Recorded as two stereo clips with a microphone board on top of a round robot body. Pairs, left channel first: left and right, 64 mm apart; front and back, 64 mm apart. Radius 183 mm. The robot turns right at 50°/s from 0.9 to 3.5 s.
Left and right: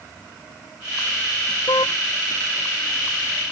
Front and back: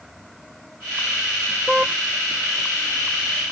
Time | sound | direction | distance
1.7 | a car horn | 95° left | ?